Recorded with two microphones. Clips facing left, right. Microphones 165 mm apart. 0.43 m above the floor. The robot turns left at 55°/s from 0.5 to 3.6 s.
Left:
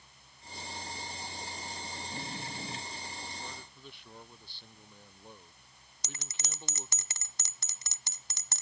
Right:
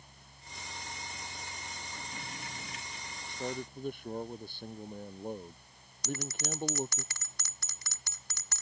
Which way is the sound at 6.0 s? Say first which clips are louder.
Right 13 dB; 20° left (ahead or behind).